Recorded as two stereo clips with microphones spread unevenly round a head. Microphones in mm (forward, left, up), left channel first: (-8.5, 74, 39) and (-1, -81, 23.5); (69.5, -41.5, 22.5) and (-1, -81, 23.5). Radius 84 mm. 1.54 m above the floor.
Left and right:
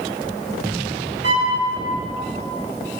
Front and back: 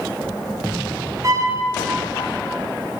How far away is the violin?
About 1.2 m.